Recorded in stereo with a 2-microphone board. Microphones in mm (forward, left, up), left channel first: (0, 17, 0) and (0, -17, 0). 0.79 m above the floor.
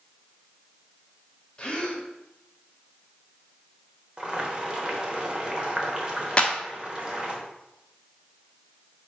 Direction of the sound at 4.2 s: 25° right (ahead or behind).